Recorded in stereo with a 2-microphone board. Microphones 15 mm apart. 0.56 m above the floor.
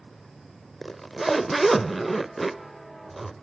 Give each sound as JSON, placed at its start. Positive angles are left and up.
{"t": 0.8, "sound": "a zipper", "side_deg": 5, "distance_m": 0.6}